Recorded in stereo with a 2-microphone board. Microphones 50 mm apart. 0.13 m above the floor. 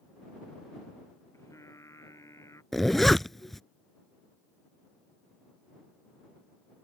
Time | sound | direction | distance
1.3 | singing | 90° left | ?
2.7 | a zipper | 5° left (ahead or behind) | ?